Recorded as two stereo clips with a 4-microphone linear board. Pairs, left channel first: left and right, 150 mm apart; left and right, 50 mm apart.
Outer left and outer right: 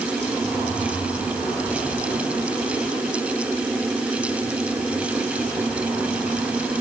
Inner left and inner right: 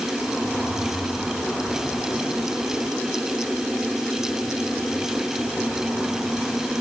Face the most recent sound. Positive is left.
No sound to turn to.